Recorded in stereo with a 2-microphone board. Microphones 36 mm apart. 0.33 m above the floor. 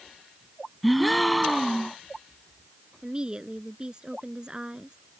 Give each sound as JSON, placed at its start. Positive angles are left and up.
{"t": 0.8, "sound": "a gasp", "side_deg": 0}
{"t": 3.0, "sound": "a woman speaking", "side_deg": -25}